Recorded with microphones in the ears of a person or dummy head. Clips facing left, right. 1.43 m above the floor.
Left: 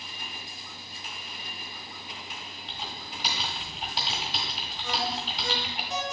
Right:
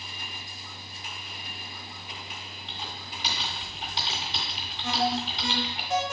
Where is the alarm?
45° right (ahead or behind), 1.9 m.